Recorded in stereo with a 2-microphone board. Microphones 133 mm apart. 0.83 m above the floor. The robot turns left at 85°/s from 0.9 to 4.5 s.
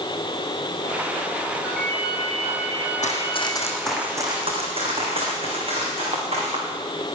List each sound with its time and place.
1.6 s a ringtone: 170° right, 4 m; by 3.6 s 20° left, 4 m
3.0 s running footsteps: 65° left (ahead or behind), 2.5 m; by 6.6 s 45° right (ahead or behind), 5.5 m